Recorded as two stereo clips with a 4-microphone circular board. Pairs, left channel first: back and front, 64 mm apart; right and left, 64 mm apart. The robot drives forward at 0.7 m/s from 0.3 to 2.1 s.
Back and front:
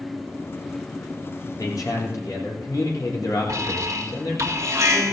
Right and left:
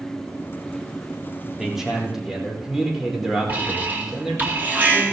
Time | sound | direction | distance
1.6 | a man speaking | 175° left | 3.5 m
3.5 | an alarm | 30° left | 2 m